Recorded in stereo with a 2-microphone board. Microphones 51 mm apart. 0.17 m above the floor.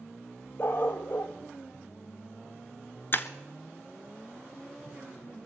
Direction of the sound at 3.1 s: 45° left (ahead or behind).